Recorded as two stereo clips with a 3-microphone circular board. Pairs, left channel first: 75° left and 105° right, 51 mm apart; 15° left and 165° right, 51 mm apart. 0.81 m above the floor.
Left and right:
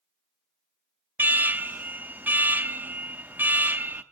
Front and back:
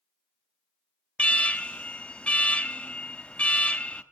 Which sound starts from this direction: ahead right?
An alarm, at 1.2 s.